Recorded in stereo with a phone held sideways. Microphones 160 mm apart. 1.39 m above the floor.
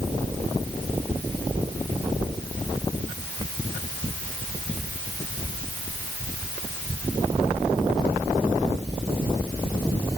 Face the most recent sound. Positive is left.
No sound to turn to.